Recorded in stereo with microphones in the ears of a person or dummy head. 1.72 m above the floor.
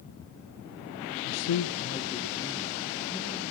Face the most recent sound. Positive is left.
turn(degrees=10)  # may be behind; listen again after turning